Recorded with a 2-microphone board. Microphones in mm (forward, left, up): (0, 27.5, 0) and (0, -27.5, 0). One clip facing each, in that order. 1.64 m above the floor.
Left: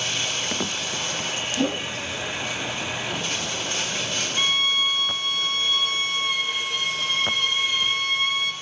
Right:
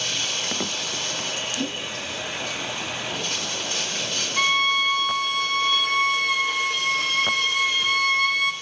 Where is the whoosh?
60° left (ahead or behind), 0.7 m.